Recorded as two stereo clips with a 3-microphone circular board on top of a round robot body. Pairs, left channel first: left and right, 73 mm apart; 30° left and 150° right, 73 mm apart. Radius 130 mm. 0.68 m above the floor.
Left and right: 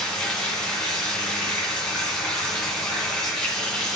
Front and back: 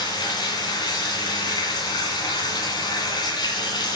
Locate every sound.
0.0 s running water: 10° left, 2 m